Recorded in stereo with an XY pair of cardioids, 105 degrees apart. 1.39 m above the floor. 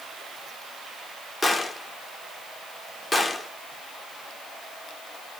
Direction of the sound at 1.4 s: 15° left.